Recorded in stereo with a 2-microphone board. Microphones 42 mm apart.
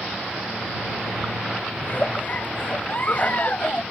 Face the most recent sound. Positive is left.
turn(degrees=40)  # may be behind; listen again after turning